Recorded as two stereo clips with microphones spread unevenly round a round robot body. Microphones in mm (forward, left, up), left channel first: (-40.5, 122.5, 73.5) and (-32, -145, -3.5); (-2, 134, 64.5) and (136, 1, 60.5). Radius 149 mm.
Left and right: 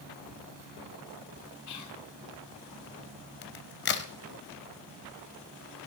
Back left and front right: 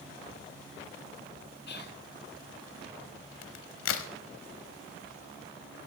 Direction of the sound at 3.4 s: 140° left.